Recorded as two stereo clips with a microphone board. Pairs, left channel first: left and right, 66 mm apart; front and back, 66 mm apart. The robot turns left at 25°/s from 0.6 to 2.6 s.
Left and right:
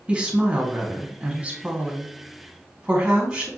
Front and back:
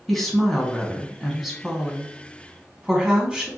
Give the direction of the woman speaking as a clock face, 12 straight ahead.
3 o'clock.